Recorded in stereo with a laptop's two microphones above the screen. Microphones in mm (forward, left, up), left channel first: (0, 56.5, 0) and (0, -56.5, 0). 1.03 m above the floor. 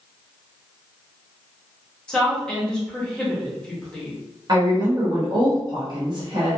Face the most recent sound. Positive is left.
turn(degrees=-40)  # may be behind; listen again after turning